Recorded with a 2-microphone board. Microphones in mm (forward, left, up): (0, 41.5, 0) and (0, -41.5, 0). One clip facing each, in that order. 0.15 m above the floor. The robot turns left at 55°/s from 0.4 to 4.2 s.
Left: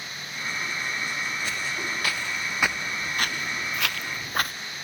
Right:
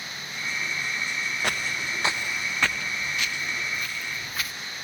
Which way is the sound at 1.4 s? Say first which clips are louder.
Right 1 dB; 65° right (ahead or behind).